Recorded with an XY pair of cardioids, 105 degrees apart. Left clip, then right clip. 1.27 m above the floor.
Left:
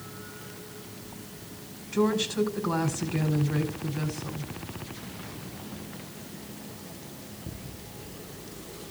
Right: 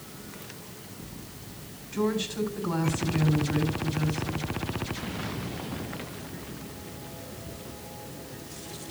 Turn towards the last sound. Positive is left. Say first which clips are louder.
# left 3 dB
turn(degrees=20)